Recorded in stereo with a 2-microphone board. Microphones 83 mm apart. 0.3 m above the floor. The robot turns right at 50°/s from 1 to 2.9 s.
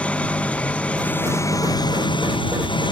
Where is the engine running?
15° left; by 2.9 s 110° left.